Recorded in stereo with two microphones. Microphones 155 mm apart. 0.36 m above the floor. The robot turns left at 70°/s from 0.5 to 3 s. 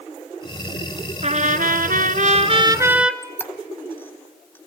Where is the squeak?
15° left (ahead or behind), 1.4 m.